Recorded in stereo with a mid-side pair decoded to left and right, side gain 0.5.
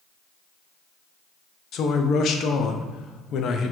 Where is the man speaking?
60° left, 0.5 m.